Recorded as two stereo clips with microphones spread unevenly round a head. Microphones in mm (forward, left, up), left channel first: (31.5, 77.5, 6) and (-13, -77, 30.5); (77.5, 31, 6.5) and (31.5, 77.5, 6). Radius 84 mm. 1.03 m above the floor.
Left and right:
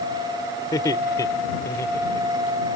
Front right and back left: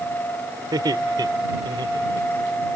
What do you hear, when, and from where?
0.7 s laughter: 145° left; by 2.7 s 150° left